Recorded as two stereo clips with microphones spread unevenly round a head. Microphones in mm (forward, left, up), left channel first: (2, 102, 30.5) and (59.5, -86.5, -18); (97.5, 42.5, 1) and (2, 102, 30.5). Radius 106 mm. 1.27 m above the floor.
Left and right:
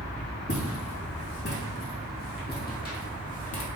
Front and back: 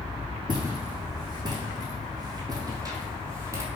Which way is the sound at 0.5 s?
115° left.